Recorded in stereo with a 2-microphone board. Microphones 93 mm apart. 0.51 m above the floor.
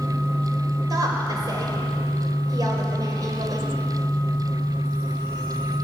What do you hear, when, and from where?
0.9 s a woman speaking: 45° right (ahead or behind), 2.5 m